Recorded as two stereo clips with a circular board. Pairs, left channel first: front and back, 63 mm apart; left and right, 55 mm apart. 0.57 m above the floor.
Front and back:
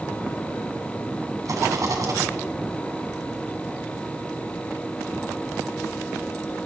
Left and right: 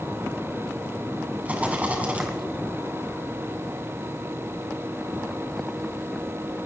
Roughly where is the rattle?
Behind right.